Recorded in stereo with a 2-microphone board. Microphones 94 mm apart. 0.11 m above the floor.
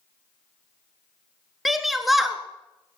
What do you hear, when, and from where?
1.6 s a shout: centre (ahead or behind), 1.4 m